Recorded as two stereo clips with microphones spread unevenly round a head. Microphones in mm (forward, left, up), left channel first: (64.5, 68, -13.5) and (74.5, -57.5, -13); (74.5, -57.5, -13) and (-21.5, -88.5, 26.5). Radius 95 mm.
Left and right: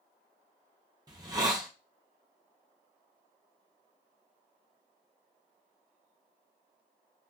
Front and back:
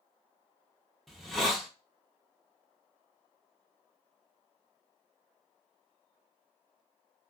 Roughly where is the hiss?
Right.